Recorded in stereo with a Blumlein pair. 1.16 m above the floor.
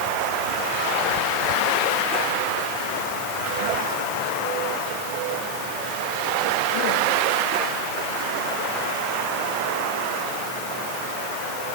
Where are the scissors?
No scissors in this recording.